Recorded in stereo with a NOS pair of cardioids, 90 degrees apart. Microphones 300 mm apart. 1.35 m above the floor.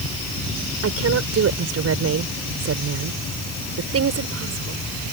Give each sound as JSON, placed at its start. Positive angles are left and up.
{"t": 0.8, "sound": "a woman speaking", "azimuth_deg": -55}